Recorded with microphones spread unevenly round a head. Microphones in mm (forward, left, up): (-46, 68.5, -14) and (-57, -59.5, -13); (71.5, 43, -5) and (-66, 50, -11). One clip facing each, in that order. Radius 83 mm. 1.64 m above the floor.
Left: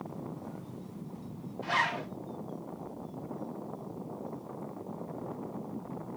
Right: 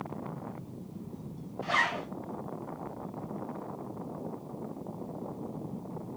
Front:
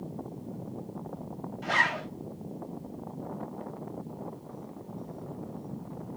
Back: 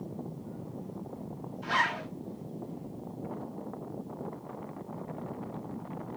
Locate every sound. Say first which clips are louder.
1.6 s a zipper: even, front 1 dB; 20° right, 2.5 m